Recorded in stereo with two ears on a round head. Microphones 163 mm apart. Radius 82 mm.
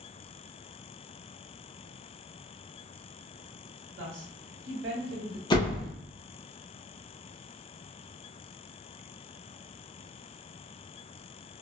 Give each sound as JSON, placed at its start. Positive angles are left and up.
{"t": 4.0, "sound": "a woman speaking", "side_deg": -70, "distance_m": 1.2}
{"t": 5.5, "sound": "a door slam", "side_deg": 25, "distance_m": 0.6}